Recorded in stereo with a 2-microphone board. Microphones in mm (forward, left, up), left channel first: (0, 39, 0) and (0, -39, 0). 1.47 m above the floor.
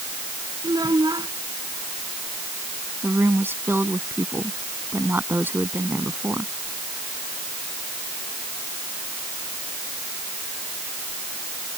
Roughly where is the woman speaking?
Right.